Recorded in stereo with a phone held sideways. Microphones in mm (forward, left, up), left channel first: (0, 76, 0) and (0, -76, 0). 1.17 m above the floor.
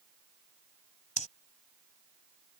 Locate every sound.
1.2 s breathing: 55° left (ahead or behind)